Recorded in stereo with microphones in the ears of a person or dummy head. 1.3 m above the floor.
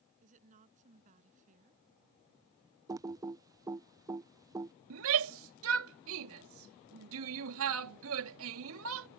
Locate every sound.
0.2 s a woman speaking: 40° right (ahead or behind)
2.9 s typing on a keyboard: 15° right (ahead or behind)
4.9 s a shout: 80° right